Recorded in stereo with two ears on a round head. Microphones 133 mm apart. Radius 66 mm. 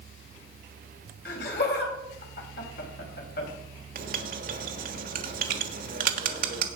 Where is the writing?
65° right (ahead or behind), 1.4 m.